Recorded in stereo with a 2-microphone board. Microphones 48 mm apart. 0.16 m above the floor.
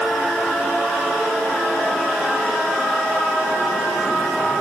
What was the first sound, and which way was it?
Only background noise.